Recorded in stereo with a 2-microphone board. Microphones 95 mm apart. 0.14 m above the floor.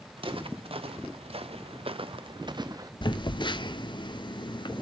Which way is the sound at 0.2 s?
65° right (ahead or behind).